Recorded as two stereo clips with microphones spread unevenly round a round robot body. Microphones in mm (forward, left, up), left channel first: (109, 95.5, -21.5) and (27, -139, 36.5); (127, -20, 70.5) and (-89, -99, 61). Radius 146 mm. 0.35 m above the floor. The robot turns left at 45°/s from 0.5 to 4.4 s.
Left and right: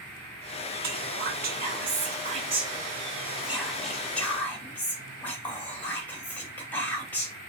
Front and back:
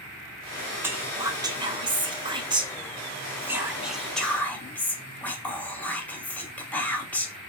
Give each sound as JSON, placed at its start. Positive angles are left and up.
{"t": 0.8, "sound": "whispering", "azimuth_deg": -100, "distance_m": 0.9}